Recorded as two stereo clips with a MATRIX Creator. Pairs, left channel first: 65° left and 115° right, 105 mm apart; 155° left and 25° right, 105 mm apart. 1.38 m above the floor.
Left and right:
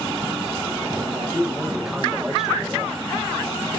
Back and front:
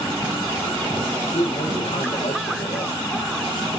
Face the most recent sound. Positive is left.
turn(degrees=165)